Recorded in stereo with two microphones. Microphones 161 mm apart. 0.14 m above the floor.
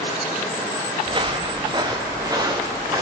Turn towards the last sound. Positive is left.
turn(degrees=-20)  # may be behind; listen again after turning